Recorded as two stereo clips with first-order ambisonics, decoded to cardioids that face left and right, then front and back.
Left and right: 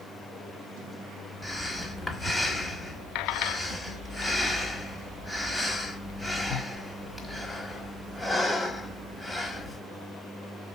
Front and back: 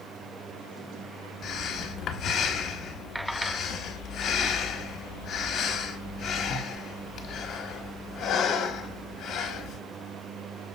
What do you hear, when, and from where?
1.4 s breathing: 5° left, 1.2 m